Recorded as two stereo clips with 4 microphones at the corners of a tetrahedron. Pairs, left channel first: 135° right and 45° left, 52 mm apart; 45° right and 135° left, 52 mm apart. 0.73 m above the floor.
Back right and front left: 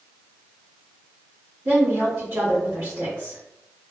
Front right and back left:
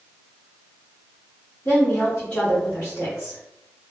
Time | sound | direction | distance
1.6 | a woman speaking | 15° left | 1.8 m